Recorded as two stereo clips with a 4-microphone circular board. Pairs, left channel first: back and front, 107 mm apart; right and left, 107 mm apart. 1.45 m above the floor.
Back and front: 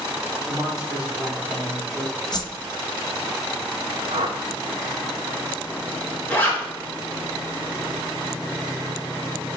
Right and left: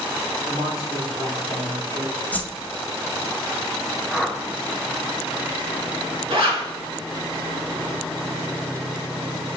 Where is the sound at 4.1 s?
Straight ahead, 0.8 m.